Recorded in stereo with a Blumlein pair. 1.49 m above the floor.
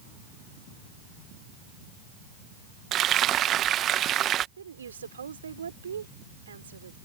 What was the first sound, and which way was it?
Frying, 30° right.